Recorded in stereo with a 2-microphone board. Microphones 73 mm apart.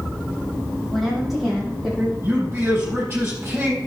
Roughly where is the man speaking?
Right.